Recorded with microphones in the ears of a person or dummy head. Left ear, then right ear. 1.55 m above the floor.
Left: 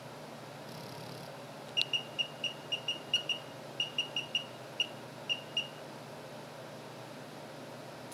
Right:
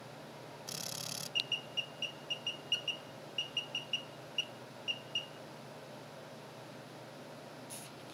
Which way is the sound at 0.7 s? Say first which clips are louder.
Right 8 dB; 70° right (ahead or behind).